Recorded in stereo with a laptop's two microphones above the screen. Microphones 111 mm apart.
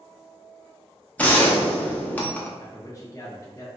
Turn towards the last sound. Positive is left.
turn(degrees=30)  # may be behind; listen again after turning